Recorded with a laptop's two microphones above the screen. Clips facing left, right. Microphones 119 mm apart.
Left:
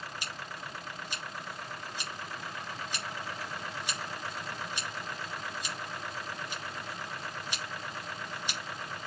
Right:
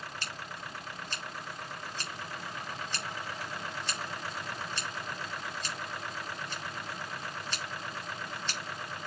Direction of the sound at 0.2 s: 10° left (ahead or behind).